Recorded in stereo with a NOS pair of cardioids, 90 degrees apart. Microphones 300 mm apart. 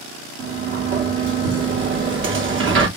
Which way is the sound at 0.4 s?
45° right.